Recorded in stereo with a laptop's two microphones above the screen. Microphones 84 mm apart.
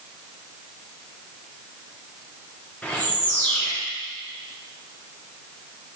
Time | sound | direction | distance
2.8 | a bird | 15° left (ahead or behind) | 2 m